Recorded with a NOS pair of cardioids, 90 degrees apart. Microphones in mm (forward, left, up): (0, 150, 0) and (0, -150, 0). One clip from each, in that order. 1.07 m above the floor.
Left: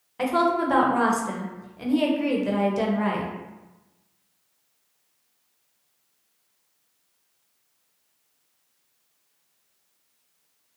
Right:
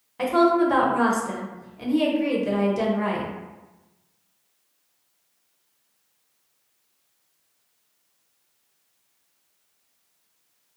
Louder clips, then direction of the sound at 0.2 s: Right 3 dB; 10° left.